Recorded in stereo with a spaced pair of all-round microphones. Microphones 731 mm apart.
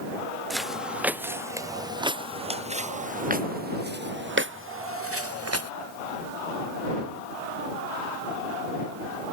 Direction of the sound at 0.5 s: Centre (ahead or behind).